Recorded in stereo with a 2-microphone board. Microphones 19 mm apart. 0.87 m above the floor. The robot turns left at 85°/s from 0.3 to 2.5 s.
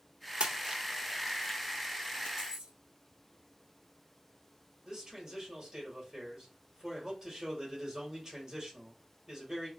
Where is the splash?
65° right (ahead or behind), 0.7 m; by 2.3 s 60° left (ahead or behind), 0.7 m.